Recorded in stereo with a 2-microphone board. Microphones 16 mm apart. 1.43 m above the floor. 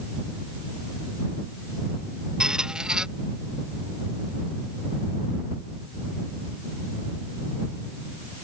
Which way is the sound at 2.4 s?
50° right (ahead or behind).